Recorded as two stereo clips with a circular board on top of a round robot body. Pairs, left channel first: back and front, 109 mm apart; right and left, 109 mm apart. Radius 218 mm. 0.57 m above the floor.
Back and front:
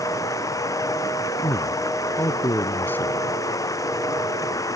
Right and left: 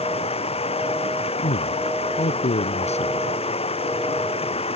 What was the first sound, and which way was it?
Running water, 120° right.